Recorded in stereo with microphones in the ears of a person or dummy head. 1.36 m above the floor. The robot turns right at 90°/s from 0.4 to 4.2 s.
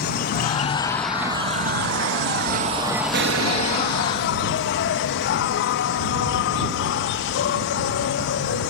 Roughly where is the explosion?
Behind right.